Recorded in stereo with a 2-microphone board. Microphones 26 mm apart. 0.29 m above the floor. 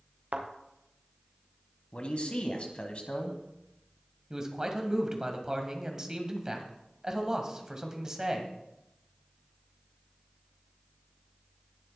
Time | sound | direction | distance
0.3 | a thud | 55° right (ahead or behind) | 3 m
1.9 | a man speaking | 45° left (ahead or behind) | 1.9 m
4.3 | a man speaking | 20° right (ahead or behind) | 1.9 m